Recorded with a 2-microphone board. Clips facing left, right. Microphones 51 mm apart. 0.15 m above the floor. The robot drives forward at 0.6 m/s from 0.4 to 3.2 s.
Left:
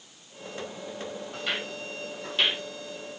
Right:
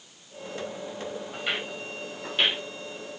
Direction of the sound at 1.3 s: 20° right (ahead or behind).